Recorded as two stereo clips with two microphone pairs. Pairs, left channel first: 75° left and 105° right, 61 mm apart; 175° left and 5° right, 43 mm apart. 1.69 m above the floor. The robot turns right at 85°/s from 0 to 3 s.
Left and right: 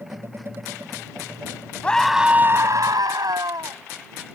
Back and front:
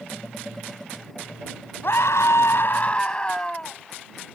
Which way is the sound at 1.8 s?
145° left.